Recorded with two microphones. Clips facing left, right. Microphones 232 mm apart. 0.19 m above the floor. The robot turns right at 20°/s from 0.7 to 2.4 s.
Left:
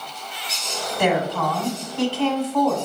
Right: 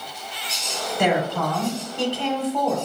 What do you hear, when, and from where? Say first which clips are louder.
1.0 s a woman speaking: left 1 dB; 15° right (ahead or behind), 1.0 m; by 2.8 s 20° right (ahead or behind), 1.0 m